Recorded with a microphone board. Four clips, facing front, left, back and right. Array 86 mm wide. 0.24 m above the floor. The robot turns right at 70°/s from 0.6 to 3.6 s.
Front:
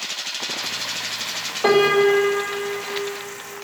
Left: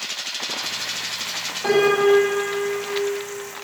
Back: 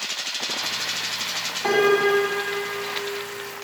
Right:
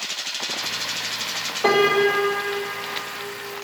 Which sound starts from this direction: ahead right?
A piano, at 1.6 s.